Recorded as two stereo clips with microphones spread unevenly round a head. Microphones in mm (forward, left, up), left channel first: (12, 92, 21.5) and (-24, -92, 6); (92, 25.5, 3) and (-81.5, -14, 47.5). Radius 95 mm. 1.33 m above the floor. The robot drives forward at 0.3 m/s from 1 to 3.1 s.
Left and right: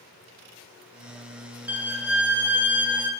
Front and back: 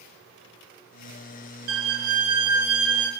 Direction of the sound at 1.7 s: Straight behind.